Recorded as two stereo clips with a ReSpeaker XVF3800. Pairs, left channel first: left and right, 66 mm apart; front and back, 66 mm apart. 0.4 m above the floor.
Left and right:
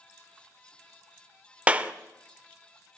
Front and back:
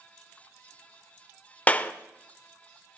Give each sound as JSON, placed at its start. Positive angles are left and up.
{"t": 1.7, "sound": "a clap", "azimuth_deg": -45, "distance_m": 0.6}